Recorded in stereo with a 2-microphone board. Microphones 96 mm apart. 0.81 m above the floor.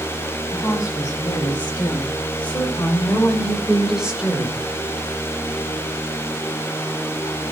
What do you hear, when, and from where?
0.5 s a woman speaking: 25° left (ahead or behind), 6.5 m; by 4.6 s 20° right (ahead or behind), 3 m